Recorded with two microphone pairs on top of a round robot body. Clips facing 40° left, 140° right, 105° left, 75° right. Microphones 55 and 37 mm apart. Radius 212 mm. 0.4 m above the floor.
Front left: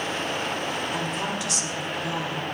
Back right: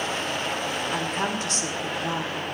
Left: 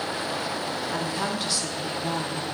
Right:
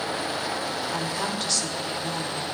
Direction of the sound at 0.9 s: 165° right.